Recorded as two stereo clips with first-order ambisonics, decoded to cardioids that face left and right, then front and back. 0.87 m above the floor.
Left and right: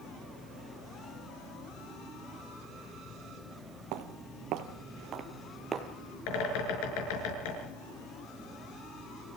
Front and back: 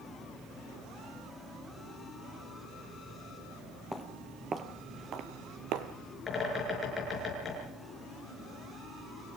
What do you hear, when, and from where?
3.9 s footsteps: 90° right, 1.6 m; by 5.9 s 165° right, 1.6 m
6.3 s a bird: 75° left, 6.5 m